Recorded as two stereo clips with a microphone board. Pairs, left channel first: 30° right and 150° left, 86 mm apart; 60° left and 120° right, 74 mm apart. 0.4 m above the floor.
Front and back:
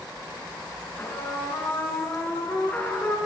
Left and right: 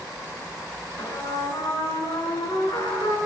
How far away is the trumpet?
About 3.5 m.